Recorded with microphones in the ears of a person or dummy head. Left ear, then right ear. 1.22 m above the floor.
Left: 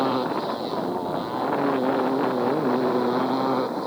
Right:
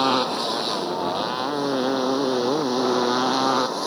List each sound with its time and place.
0.0 s a motorcycle: 85° right